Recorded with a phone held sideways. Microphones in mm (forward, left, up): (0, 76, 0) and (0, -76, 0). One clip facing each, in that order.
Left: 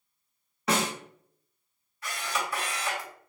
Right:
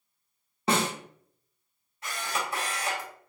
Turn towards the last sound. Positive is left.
turn(degrees=-25)  # may be behind; listen again after turning